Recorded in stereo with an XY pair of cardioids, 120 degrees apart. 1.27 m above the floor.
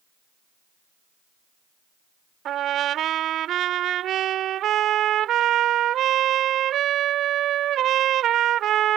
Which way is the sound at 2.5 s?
60° right.